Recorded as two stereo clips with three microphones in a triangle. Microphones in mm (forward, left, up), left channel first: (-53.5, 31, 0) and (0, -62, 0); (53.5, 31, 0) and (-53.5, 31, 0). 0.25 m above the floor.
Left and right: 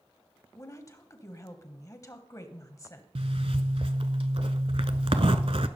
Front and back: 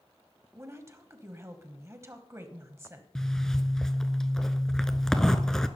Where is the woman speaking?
140° left, 1.2 m.